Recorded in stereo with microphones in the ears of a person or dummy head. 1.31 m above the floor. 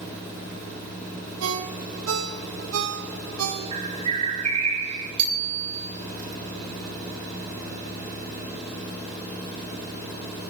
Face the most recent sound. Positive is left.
turn(degrees=-60)  # may be behind; listen again after turning